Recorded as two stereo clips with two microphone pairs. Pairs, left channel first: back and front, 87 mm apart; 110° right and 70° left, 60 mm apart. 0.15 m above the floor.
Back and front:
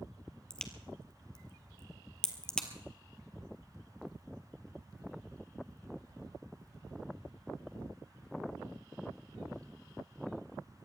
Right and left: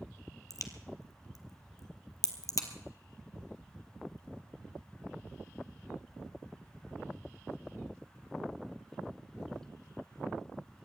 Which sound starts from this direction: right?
A crack, at 0.5 s.